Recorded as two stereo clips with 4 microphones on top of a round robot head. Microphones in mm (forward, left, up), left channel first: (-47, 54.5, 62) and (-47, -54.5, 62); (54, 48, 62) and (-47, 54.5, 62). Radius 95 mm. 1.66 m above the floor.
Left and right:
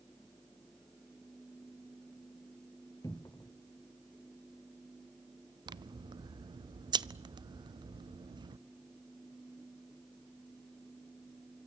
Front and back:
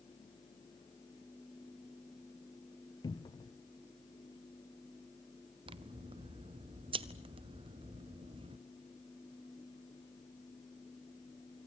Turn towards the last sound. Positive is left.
turn(degrees=-140)